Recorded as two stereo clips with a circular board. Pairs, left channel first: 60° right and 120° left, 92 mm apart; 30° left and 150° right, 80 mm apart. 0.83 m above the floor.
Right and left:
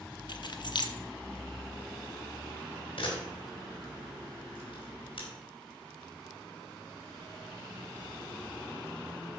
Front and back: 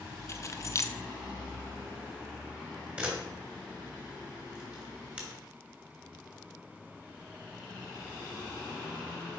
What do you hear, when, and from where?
0.3 s keys jangling: 25° right, 0.8 m
3.0 s a camera shutter: 75° right, 3 m